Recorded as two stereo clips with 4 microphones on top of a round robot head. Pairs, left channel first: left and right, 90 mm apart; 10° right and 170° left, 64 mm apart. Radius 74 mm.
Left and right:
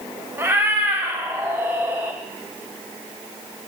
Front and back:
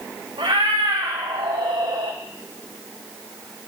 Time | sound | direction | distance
0.4 | a cat meowing | 155° right | 0.7 m